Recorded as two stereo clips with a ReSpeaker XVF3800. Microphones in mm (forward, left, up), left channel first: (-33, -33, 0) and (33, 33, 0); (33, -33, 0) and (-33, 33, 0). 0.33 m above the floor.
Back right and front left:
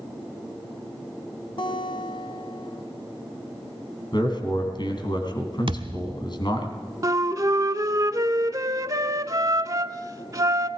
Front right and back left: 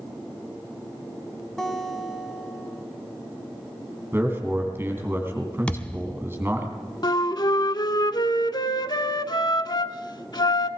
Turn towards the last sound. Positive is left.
turn(degrees=-5)